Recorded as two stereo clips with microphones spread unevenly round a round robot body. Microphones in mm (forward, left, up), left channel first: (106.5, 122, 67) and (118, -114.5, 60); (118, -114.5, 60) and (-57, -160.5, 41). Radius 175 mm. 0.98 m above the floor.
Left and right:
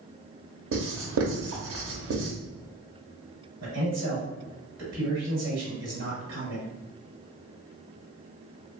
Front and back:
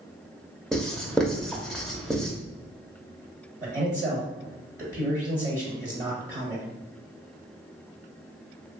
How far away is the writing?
About 0.7 m.